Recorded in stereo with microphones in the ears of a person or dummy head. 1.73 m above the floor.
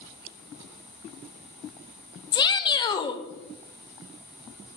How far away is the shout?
About 0.6 m.